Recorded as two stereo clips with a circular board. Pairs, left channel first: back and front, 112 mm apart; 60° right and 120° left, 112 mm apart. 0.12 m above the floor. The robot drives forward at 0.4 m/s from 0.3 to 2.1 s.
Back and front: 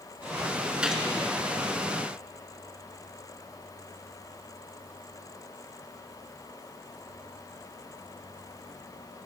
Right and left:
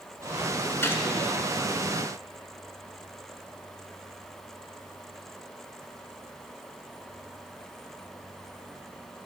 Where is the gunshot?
65° right, 0.9 m; by 1.0 s 80° right, 0.8 m.